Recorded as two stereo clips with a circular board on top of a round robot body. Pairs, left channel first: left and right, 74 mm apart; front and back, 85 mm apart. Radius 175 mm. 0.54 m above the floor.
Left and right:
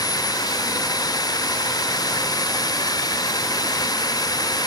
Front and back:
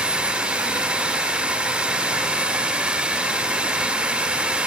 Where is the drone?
100° left.